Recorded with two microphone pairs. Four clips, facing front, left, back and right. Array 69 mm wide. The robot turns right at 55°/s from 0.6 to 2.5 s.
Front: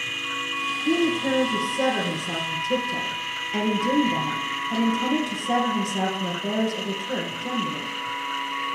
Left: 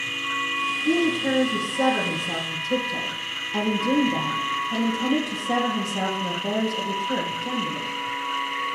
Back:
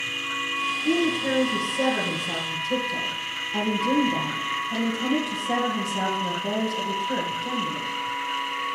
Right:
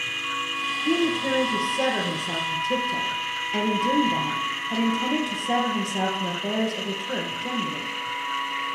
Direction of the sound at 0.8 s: 155° right.